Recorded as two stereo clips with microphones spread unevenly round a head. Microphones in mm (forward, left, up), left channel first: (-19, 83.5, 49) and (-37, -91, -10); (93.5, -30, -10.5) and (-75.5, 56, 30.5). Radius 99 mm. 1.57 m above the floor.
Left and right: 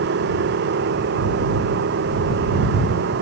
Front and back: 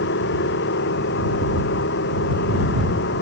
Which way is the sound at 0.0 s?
65° right.